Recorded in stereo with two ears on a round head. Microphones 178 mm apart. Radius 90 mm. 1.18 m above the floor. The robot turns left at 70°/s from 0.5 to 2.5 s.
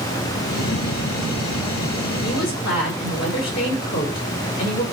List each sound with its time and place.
2.2 s a woman speaking: 35° left (ahead or behind), 5 m; by 4.8 s 55° left (ahead or behind), 5 m